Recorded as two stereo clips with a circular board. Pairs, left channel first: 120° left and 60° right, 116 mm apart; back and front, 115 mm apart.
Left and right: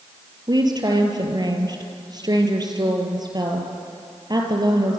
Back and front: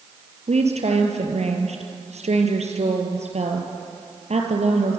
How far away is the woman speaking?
About 4 m.